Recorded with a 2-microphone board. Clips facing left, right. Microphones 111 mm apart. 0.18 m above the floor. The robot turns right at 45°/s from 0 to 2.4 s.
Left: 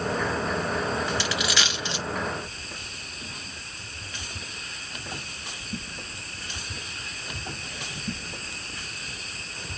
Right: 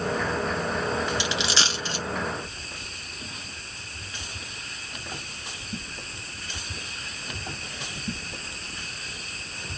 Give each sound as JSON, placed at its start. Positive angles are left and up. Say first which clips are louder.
{"t": 1.2, "sound": "a dropped coin", "louder": "even", "side_deg": -20, "distance_m": 1.0}